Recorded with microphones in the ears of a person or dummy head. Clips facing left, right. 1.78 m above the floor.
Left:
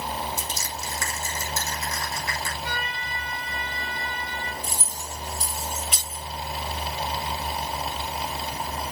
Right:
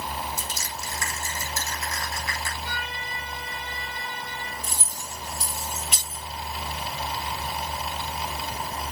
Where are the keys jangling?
Centre (ahead or behind), 5 m.